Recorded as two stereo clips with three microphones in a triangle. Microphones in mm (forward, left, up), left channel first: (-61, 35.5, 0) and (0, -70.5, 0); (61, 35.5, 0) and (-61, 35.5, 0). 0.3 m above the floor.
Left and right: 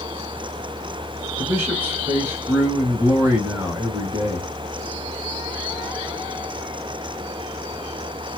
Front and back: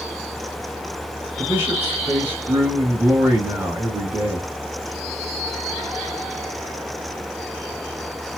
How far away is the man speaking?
About 1.5 m.